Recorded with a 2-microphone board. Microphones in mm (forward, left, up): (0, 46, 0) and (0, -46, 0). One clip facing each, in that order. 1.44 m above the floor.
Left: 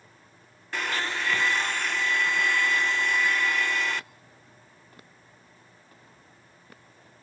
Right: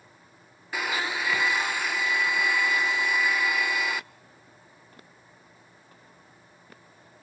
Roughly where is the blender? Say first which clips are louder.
Right 1 dB; centre.